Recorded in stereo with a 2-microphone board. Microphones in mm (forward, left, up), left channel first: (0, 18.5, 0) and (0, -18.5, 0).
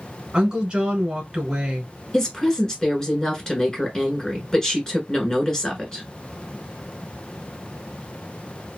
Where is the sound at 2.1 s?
20° left (ahead or behind), 1.3 m.